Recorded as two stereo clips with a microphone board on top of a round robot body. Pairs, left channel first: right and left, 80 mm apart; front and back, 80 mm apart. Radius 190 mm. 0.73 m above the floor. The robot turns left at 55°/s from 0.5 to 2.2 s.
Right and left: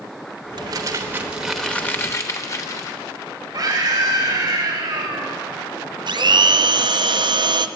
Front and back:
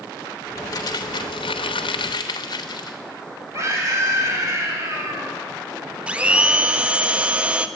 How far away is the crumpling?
About 0.7 m.